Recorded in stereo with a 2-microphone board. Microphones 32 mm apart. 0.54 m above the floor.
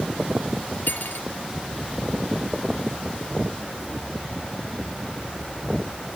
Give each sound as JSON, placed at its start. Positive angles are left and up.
{"t": 0.9, "sound": "cutlery clinking", "side_deg": 75}